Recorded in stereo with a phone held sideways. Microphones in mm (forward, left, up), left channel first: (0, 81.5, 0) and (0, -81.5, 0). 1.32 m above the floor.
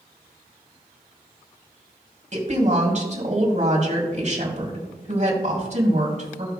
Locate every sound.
2.3 s a woman speaking: 50° right (ahead or behind), 3 m